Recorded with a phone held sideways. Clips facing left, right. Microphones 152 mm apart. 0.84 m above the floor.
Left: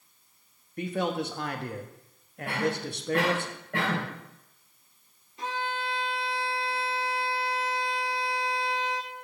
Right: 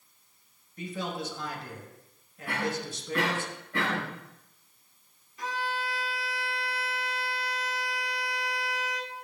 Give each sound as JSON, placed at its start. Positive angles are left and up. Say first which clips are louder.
{"t": 0.8, "sound": "a man speaking", "louder": "left 6 dB", "side_deg": 60, "distance_m": 1.0}
{"t": 2.5, "sound": "a cough", "louder": "left 3 dB", "side_deg": 75, "distance_m": 4.0}
{"t": 5.4, "sound": "a violin", "louder": "left 1 dB", "side_deg": 25, "distance_m": 1.0}